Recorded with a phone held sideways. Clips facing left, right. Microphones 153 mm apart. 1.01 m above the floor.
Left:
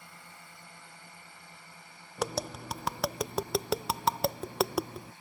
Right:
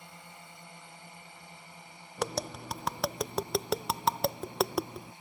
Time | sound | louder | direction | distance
0.0 | a drone | right 2 dB | 20° right (ahead or behind) | ?
2.2 | tapping | even | centre (ahead or behind) | ?